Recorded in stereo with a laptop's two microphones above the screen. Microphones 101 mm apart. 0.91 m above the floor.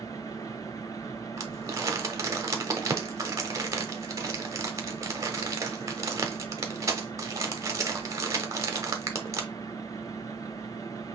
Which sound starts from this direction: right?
Crumpling, at 1.4 s.